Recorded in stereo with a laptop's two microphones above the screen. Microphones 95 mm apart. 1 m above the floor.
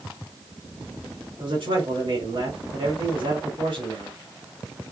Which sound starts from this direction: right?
A man speaking, at 1.4 s.